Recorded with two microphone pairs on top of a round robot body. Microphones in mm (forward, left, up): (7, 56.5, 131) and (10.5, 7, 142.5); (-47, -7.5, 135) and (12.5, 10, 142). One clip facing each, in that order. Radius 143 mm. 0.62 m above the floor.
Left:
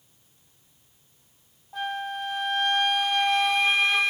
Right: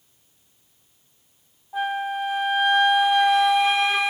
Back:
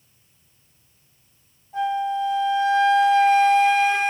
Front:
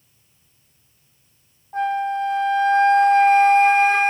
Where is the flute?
5° left, 1.3 m.